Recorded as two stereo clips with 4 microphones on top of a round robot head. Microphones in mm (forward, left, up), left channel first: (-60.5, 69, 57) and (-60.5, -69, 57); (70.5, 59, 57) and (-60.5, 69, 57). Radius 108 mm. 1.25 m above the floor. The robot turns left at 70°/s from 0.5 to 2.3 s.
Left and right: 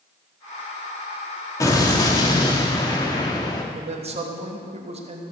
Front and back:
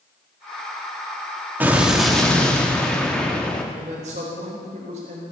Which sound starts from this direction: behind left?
An explosion, at 1.6 s.